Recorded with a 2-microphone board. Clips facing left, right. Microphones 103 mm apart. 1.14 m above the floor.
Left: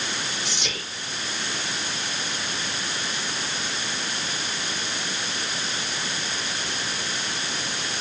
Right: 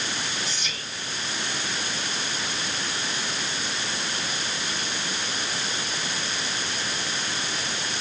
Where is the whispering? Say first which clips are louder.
Left 2 dB; 80° left, 0.5 m.